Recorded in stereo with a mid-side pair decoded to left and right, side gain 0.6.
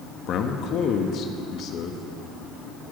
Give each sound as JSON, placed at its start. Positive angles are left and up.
{"t": 0.3, "sound": "a man speaking", "azimuth_deg": 55, "distance_m": 1.4}